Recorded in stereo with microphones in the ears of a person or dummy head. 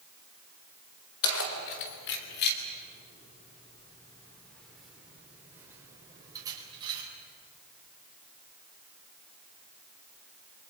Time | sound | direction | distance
1.2 | keys jangling | 75° left (ahead or behind) | 3.5 m